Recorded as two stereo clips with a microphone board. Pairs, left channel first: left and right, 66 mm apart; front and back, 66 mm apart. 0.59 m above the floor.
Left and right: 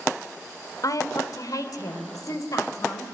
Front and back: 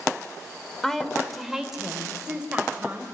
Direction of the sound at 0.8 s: 80° left.